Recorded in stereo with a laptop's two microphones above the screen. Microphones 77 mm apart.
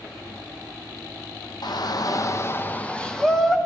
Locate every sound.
1.6 s a shout: 60° left (ahead or behind), 0.8 m; by 3.6 s 5° left (ahead or behind), 1.3 m